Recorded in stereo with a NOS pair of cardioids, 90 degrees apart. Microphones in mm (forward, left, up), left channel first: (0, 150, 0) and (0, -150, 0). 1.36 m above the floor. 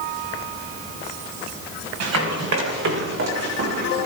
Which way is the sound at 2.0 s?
60° right.